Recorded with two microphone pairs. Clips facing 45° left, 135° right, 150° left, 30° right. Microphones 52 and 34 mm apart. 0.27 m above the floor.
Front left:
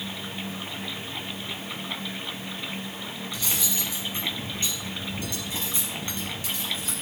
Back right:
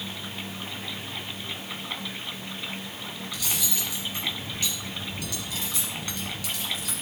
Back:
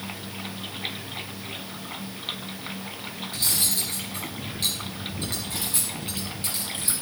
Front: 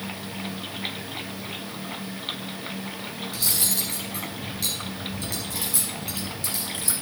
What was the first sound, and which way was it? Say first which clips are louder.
Cutlery clinking: front left 1 dB, back 1 dB; 105° left.